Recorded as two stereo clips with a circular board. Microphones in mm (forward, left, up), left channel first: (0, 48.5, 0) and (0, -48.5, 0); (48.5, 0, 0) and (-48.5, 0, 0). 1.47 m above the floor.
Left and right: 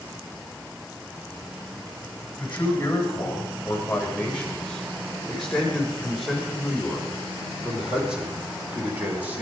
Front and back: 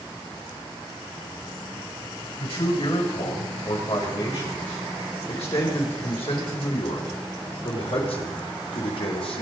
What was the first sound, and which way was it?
A man speaking, 15° left.